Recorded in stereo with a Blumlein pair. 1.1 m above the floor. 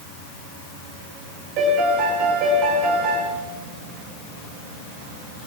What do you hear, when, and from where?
1.6 s a piano: 40° right, 4 m